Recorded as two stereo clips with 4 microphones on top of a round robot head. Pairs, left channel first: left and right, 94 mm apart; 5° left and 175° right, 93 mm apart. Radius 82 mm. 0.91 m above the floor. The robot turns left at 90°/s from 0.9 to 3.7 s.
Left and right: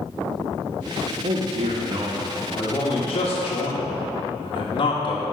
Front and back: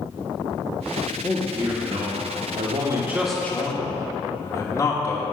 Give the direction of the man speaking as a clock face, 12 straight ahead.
2 o'clock.